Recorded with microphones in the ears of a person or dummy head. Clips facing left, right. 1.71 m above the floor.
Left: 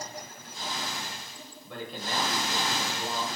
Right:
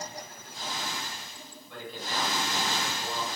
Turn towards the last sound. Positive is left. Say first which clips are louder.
# left 3 dB
turn(degrees=55)  # may be behind; listen again after turning